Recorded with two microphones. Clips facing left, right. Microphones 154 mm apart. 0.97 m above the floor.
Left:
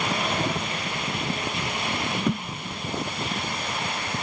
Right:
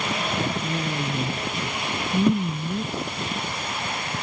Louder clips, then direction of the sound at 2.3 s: Right 6 dB; 15° right (ahead or behind).